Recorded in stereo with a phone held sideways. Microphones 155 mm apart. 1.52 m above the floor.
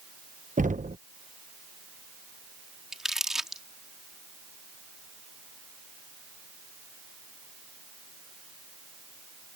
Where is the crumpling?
5° right (ahead or behind).